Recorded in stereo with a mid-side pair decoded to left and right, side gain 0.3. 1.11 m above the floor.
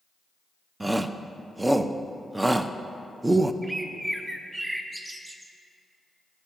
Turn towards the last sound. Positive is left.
turn(degrees=-20)